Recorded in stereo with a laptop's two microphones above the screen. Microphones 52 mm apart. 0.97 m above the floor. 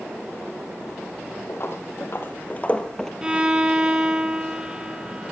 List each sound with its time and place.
1.5 s footsteps: 55° left (ahead or behind), 1.8 m; by 3.1 s 5° left (ahead or behind), 1.2 m
3.2 s a violin: 20° right (ahead or behind), 1.2 m